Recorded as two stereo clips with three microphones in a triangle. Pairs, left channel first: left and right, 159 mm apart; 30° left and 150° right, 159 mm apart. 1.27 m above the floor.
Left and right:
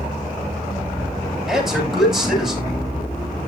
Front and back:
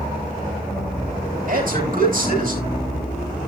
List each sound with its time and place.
1.5 s a man speaking: 175° right, 9.5 m